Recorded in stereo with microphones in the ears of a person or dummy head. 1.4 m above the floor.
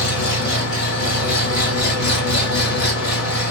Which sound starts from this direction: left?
An engine running, at 0.0 s.